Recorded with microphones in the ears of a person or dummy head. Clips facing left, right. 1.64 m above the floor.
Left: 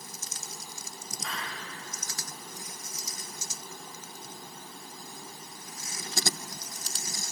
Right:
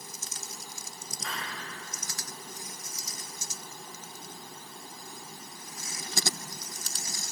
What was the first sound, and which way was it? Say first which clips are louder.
A hiss: even; 10° right (ahead or behind).